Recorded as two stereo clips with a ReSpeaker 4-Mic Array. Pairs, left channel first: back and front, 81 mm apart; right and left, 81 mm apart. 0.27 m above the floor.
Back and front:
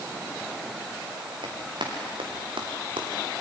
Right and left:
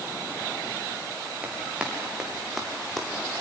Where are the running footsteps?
15° left, 5.5 m; by 3.1 s 5° right, 4.5 m.